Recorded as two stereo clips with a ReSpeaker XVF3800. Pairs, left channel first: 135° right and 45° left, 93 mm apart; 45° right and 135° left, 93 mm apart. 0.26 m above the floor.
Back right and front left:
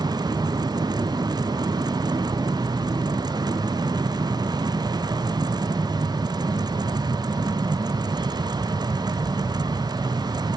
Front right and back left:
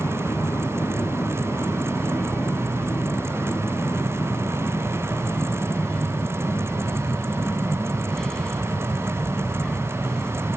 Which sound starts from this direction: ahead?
An aircraft, at 0.0 s.